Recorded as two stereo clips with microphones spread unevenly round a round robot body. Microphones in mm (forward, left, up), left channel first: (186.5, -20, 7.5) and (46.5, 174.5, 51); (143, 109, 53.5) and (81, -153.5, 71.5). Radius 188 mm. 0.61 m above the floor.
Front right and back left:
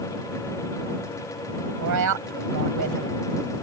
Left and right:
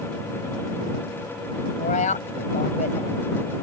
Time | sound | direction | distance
1.8 | a woman speaking | 145° left | ?